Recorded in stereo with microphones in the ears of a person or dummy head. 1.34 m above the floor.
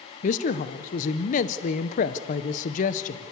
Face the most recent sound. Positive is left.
turn(degrees=45)  # may be behind; listen again after turning